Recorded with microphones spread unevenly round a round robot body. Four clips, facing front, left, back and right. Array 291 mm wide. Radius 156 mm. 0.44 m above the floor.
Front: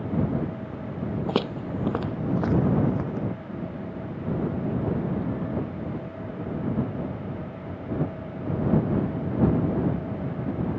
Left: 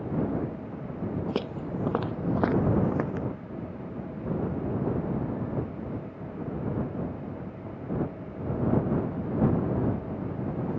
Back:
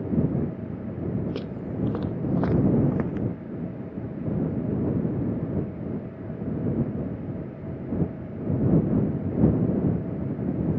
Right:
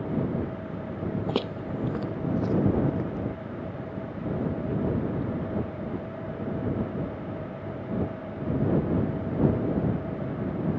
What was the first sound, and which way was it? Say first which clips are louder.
Footsteps: right 2 dB, front 4 dB; 5° right.